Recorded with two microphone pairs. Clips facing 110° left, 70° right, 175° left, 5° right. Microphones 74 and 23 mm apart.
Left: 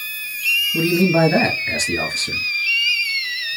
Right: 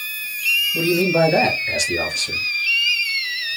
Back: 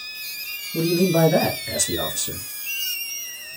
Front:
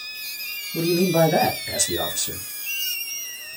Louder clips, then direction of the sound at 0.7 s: Left 1 dB, even; 80° left.